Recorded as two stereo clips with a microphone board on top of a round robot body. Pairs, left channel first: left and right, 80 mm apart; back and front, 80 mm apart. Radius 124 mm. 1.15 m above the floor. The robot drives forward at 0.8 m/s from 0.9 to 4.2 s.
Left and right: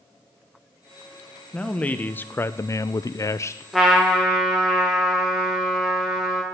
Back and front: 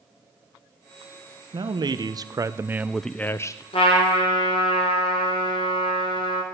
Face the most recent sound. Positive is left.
turn(degrees=-175)